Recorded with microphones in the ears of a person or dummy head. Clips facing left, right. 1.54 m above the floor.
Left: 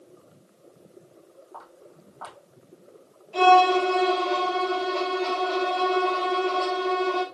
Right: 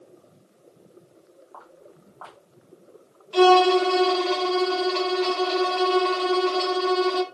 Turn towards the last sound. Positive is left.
turn(degrees=-85)